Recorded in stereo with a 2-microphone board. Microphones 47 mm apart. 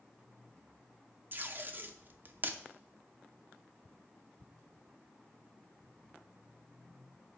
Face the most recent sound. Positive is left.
turn(degrees=-40)  # may be behind; listen again after turning